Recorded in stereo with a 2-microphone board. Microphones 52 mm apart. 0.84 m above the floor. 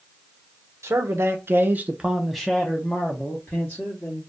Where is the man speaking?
70° right (ahead or behind), 0.8 m; by 4.2 s 40° left (ahead or behind), 1.4 m.